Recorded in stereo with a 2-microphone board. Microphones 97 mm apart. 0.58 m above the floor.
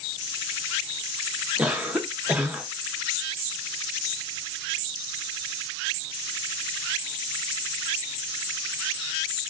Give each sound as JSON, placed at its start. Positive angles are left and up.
{"t": 1.6, "sound": "a cough", "side_deg": -10, "distance_m": 0.8}